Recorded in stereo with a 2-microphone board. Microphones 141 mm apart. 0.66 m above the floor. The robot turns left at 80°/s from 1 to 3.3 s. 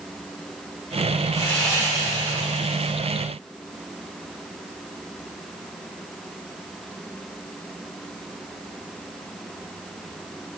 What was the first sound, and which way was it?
Sawing, 30° left.